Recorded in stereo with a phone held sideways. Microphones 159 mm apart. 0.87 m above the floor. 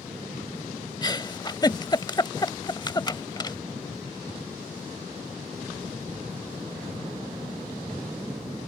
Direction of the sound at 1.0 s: 30° left (ahead or behind).